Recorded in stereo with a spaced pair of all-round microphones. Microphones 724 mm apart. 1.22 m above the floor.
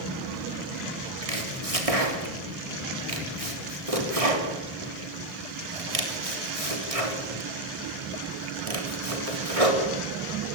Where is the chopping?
55° right (ahead or behind), 3.5 m.